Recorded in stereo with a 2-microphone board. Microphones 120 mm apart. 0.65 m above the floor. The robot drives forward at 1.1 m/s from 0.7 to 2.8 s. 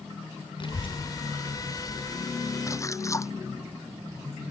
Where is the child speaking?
45° left (ahead or behind); by 2.6 s 10° left (ahead or behind).